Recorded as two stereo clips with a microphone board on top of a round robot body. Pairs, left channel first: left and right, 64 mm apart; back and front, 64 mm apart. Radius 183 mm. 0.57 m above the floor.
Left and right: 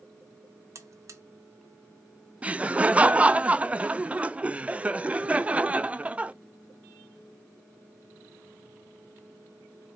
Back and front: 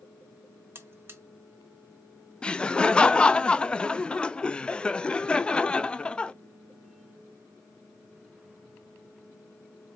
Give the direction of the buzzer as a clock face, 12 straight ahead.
2 o'clock.